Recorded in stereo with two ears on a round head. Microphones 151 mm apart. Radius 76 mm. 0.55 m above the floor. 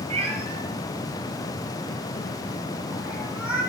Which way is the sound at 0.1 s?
35° right (ahead or behind).